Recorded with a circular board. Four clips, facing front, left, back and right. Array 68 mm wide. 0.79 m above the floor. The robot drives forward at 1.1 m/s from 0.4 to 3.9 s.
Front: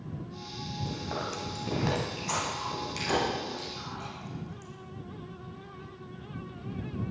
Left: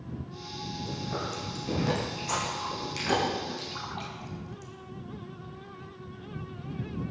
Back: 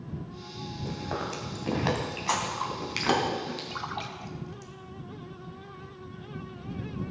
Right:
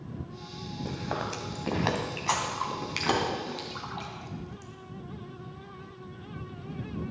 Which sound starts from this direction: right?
Chewing, at 0.8 s.